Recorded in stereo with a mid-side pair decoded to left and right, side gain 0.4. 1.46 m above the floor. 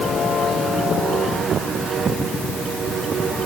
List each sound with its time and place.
Only background noise.